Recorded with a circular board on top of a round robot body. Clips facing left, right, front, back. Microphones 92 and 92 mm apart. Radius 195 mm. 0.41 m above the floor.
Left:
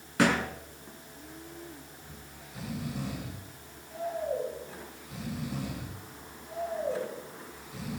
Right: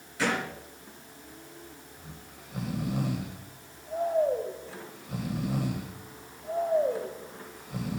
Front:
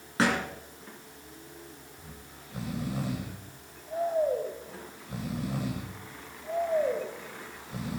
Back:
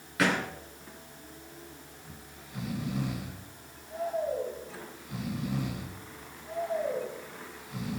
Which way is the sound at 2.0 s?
55° right.